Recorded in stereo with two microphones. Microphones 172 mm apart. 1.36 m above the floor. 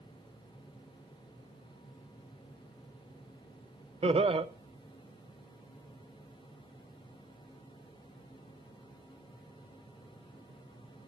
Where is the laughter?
35° right (ahead or behind), 0.8 m.